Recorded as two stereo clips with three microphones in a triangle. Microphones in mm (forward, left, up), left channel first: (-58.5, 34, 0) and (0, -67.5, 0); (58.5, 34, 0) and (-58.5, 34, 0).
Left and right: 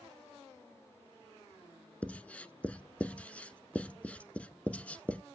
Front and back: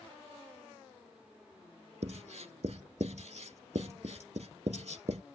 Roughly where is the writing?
Behind.